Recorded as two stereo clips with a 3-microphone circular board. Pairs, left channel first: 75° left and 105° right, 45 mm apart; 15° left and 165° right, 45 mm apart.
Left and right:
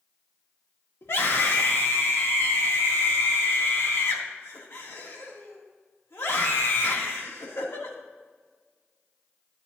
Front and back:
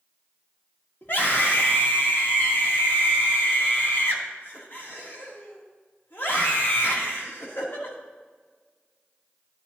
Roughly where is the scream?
Ahead left.